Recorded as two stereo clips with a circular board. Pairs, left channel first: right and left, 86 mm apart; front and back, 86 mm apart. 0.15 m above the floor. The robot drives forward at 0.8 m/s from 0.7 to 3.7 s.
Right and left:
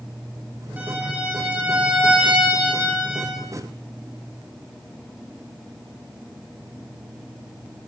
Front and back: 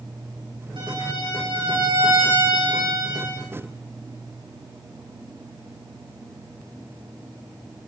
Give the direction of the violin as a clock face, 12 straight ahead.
7 o'clock.